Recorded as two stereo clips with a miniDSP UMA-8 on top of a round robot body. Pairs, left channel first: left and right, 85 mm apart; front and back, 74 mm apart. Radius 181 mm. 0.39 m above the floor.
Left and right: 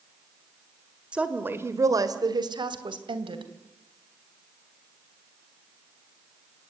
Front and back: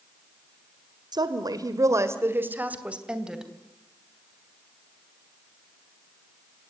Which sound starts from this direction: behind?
A woman speaking, at 1.1 s.